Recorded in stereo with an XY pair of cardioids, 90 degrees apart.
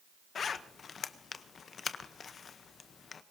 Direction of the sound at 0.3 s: 55° left.